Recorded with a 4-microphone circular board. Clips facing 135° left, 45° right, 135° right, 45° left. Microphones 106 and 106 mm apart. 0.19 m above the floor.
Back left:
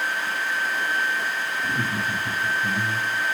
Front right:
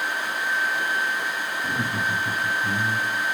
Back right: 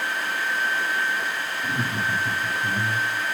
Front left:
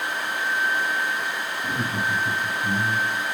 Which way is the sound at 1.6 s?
165° left.